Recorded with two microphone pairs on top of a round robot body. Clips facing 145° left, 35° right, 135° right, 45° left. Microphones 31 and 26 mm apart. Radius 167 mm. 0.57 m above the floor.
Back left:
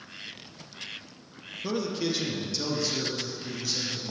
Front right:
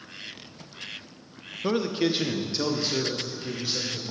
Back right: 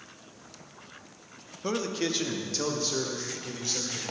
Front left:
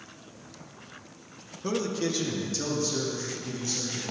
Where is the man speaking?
75° right, 1.0 m; by 4.0 s 90° right, 2.5 m.